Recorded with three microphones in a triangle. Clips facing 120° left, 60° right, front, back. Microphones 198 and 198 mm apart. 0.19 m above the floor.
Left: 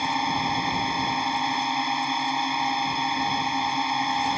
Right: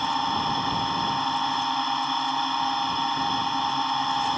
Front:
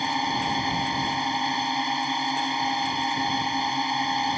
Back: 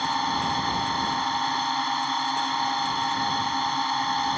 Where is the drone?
55° left.